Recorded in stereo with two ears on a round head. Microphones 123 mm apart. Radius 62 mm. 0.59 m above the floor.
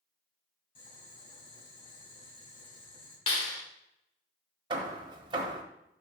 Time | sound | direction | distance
0.8 | boiling | 45° left (ahead or behind) | 4 m
3.3 | a clap | 40° left (ahead or behind) | 1.7 m
4.7 | hammering | 35° right (ahead or behind) | 1.2 m